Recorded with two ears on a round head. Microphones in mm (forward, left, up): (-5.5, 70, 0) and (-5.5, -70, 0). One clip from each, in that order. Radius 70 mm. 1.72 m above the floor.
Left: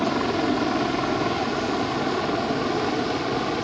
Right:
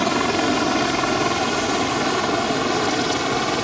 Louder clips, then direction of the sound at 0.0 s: Right 4 dB; 60° right (ahead or behind).